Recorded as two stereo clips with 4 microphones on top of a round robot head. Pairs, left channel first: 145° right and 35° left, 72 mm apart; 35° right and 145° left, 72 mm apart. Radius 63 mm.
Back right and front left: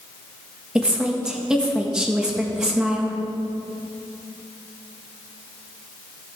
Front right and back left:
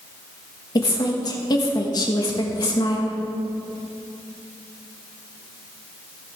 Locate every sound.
0.8 s a woman speaking: 40° right, 1.6 m